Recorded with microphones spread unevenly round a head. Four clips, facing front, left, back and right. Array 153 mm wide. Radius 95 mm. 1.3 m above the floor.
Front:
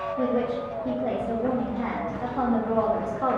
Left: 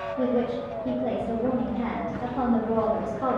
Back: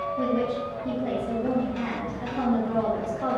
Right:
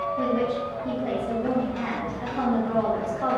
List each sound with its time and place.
0.2 s a woman speaking: 20° right, 1.9 m